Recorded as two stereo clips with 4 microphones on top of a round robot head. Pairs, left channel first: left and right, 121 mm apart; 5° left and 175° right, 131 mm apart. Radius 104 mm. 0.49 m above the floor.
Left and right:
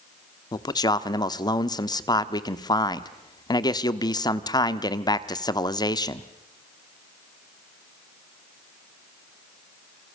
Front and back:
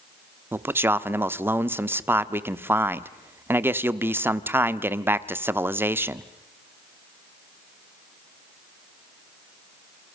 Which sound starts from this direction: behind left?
A man speaking, at 0.5 s.